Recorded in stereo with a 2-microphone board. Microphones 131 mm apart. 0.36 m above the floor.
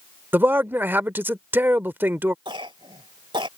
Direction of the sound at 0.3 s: 15° right (ahead or behind).